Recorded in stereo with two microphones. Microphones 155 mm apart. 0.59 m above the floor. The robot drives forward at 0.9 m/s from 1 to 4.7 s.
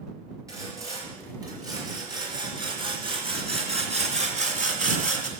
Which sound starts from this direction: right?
Sawing, at 0.5 s.